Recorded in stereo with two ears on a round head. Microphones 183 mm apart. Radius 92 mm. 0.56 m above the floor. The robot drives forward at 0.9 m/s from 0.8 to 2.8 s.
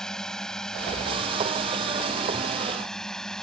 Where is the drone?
5° left (ahead or behind).